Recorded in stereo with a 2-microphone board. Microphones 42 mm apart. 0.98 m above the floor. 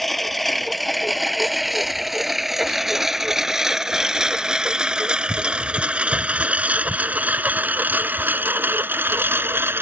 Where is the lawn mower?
5° left (ahead or behind); by 9.8 s 65° right (ahead or behind).